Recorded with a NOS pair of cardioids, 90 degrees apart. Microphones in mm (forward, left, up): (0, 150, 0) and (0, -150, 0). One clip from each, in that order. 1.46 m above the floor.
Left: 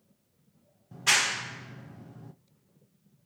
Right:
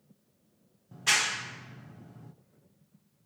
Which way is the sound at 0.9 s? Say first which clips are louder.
Left 2 dB; 10° left.